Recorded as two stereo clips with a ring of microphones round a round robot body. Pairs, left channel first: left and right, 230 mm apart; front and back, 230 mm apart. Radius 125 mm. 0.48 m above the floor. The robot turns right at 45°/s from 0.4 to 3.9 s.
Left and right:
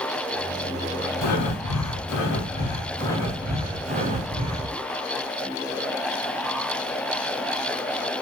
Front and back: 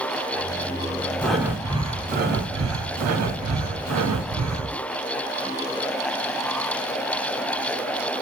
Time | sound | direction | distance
1.2 | breathing | 85° left | 0.6 m